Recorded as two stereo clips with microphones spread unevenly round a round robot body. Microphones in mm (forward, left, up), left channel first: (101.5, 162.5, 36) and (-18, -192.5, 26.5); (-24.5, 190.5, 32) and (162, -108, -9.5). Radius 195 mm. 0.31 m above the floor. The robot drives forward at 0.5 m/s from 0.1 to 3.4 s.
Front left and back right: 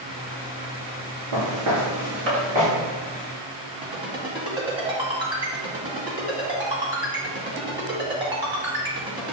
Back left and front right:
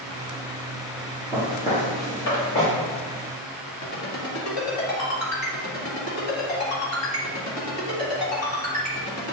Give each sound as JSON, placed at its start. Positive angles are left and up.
{"t": 1.3, "sound": "footsteps", "azimuth_deg": -150, "distance_m": 2.5}
{"t": 3.8, "sound": "a ringtone", "azimuth_deg": 175, "distance_m": 1.9}